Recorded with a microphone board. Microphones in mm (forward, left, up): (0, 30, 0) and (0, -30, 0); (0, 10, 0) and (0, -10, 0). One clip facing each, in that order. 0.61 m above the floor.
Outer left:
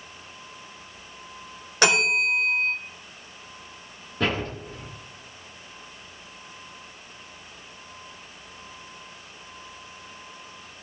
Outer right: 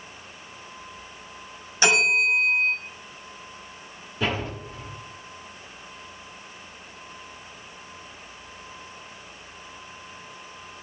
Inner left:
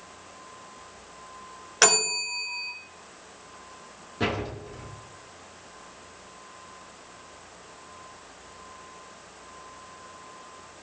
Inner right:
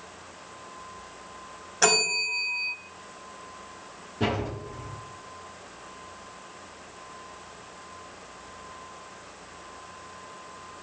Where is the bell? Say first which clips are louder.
Outer right 1 dB, even; 70° left (ahead or behind), 3 m.